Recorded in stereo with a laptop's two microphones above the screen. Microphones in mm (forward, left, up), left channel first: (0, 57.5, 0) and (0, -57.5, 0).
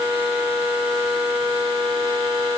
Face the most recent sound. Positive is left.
No sound to turn to.